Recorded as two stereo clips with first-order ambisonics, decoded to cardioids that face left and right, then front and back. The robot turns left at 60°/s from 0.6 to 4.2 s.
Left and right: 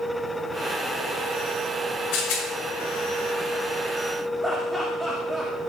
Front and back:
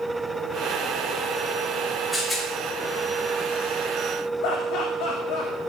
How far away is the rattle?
About 5 m.